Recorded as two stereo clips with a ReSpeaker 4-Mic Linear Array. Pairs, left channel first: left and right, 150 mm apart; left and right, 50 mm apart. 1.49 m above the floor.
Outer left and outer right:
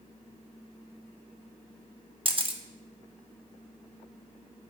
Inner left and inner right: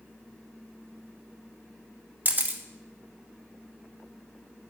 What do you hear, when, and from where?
2.2 s a camera shutter: 40° right (ahead or behind), 1.2 m